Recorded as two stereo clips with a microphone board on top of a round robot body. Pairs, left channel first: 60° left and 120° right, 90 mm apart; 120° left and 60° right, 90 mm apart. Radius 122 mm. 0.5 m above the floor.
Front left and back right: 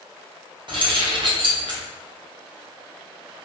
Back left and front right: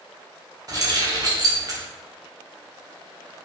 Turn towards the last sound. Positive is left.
turn(degrees=-100)